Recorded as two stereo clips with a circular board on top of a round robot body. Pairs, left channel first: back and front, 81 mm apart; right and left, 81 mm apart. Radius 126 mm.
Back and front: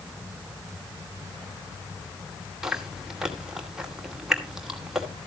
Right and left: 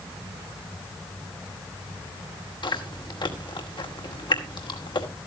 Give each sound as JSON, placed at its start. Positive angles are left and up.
{"t": 2.6, "sound": "chewing", "azimuth_deg": -80, "distance_m": 2.5}